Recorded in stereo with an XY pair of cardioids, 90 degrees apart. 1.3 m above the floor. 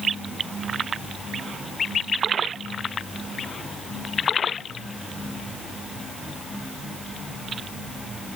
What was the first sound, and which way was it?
Only background noise.